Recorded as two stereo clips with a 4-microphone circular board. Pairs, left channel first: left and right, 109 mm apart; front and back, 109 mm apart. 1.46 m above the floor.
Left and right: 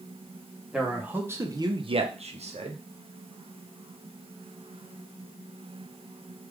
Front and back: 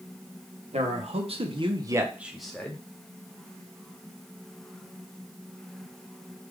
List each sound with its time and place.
0.7 s a man speaking: 175° right, 1.0 m; by 2.8 s 75° right, 0.9 m